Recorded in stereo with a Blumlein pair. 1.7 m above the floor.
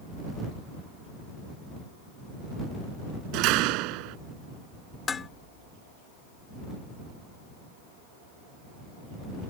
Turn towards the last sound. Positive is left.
turn(degrees=20)